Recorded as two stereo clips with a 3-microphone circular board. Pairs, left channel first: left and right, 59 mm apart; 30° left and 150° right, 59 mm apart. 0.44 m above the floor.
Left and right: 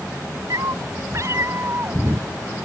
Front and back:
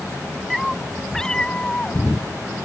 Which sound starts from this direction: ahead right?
A cat meowing, at 0.5 s.